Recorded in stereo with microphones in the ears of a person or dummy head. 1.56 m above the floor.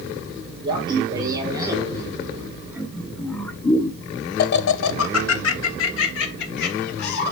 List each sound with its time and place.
0.6 s laughter: 25° right (ahead or behind), 2.5 m; by 7.3 s 60° left (ahead or behind), 2 m